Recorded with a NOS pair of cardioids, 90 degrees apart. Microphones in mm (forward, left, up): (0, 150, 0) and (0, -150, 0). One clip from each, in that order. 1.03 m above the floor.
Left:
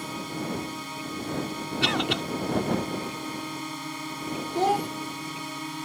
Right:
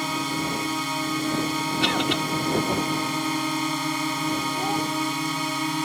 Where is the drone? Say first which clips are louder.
Right 7 dB; 65° right; by 5.8 s 60° right.